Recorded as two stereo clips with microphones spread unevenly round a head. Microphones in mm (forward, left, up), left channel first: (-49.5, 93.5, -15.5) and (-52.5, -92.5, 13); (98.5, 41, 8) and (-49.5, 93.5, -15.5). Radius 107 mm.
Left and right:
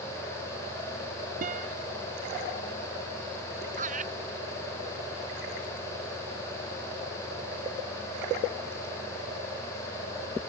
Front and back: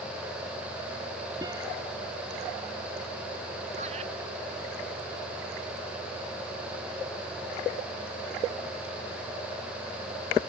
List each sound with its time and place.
1.4 s a guitar: 130° right
3.8 s laughter: 135° right